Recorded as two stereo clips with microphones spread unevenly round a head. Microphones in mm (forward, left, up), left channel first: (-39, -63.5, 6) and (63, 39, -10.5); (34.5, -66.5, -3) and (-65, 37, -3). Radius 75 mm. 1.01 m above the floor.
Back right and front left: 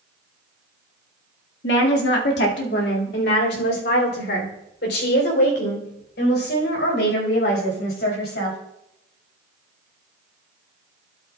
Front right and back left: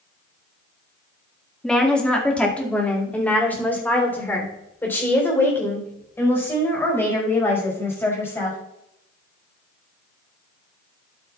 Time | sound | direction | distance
1.6 | a woman speaking | 130° right | 1.8 m